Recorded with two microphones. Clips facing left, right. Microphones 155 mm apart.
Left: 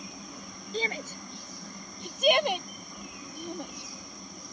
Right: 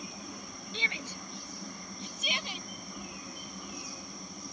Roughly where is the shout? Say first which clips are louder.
Left 9 dB; left.